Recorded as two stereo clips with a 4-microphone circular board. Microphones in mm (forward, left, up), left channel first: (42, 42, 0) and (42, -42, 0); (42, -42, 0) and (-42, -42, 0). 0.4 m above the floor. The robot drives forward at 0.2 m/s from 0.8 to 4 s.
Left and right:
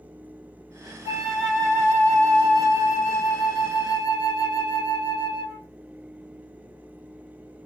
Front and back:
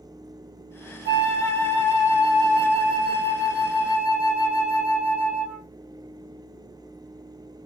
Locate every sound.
1.1 s a flute: 35° right, 1.7 m; by 5.7 s 55° right, 1.4 m